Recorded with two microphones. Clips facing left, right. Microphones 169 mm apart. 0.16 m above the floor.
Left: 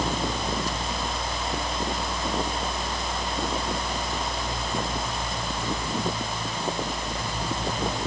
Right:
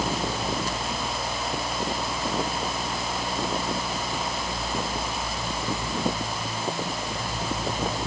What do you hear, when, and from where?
Only background noise.